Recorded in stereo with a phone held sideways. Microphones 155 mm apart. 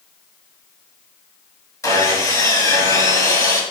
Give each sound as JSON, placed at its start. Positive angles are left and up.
{"t": 1.8, "sound": "sawing", "side_deg": 20, "distance_m": 2.0}